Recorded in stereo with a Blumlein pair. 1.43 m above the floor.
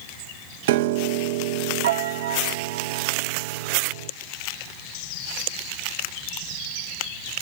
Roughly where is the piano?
Ahead right.